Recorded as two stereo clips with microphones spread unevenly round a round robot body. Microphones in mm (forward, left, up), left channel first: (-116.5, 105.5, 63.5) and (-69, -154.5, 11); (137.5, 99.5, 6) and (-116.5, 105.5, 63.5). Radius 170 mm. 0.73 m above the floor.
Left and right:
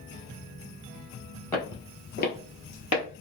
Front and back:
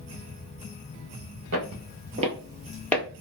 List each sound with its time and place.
1.5 s footsteps: 175° left, 1.4 m; by 3.0 s 85° left, 1.5 m